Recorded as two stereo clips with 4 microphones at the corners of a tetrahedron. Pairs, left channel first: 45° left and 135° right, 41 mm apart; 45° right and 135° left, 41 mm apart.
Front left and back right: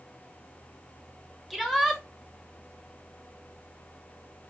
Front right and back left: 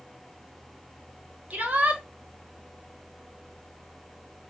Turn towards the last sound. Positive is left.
turn(degrees=140)